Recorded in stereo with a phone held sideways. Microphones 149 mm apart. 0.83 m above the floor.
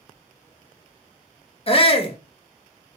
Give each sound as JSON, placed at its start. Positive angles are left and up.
{"t": 1.7, "sound": "a shout", "side_deg": 40, "distance_m": 0.9}